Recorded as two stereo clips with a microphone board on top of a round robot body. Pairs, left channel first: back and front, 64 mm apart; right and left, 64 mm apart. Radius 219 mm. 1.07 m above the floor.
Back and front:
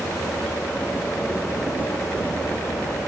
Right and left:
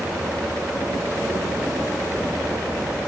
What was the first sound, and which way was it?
Only background noise.